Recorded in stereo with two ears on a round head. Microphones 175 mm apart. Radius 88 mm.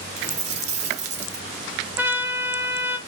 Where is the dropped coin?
40° right (ahead or behind), 1.0 m.